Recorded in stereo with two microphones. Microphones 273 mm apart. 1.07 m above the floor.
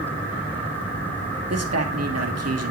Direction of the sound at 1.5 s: 65° right (ahead or behind).